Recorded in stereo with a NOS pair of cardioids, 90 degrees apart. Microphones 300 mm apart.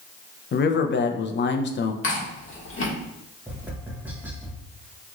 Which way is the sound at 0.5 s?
35° left.